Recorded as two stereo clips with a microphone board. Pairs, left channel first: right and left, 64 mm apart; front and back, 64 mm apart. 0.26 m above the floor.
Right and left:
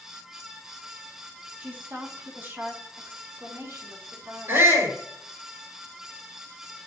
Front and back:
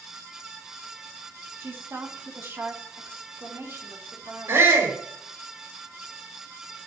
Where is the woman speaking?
145° left, 2 m; by 4.7 s 135° left, 4 m.